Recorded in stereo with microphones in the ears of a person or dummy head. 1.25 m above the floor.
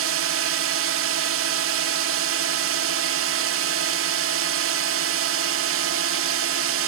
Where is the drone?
60° right (ahead or behind).